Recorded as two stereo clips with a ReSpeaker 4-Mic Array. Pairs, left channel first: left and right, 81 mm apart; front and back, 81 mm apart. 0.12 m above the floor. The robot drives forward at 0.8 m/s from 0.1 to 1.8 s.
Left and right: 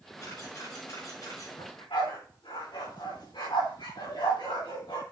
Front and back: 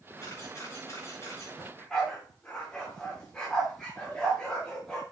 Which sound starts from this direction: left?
A dog barking, at 1.6 s.